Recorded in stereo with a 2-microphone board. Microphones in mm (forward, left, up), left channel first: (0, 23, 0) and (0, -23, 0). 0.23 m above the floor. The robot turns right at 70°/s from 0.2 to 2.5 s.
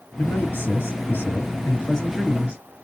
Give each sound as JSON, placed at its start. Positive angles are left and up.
{"t": 0.2, "sound": "a man speaking", "azimuth_deg": 45, "distance_m": 3.5}